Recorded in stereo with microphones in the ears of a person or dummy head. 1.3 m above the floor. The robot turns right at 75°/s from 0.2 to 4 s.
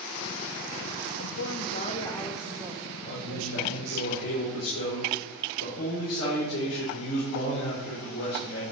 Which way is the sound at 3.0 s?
25° left.